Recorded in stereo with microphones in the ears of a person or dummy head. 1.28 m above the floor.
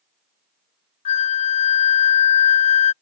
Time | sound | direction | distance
1.1 | a flute | 35° left (ahead or behind) | ?